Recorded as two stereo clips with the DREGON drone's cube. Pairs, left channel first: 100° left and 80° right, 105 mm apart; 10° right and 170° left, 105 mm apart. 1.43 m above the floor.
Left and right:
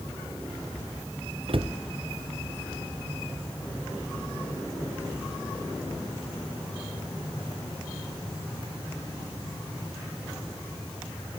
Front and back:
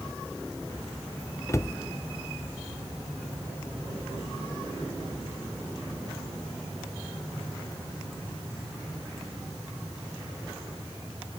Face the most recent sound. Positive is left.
turn(degrees=-70)